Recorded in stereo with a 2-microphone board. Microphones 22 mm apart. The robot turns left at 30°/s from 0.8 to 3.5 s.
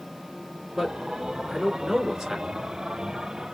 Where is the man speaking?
5° left (ahead or behind), 1.7 m; by 2.6 s 15° right (ahead or behind), 1.7 m.